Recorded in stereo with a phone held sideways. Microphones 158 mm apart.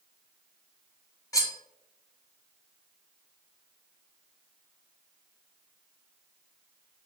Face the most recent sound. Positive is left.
turn(degrees=20)  # may be behind; listen again after turning